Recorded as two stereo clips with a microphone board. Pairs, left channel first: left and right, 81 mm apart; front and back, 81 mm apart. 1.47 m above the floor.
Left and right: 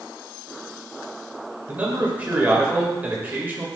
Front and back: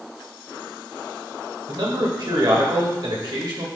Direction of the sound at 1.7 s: 160° right.